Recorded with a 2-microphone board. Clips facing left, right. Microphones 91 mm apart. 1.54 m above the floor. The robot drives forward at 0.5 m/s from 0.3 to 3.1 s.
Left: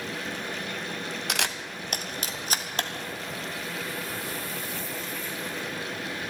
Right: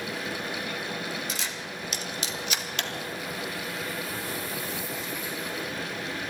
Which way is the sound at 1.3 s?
70° left (ahead or behind).